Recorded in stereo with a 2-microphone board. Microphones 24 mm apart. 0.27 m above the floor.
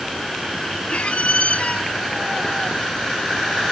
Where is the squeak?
60° left (ahead or behind).